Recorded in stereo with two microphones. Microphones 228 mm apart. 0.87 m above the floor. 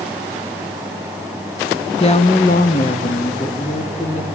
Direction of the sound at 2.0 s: 25° left (ahead or behind).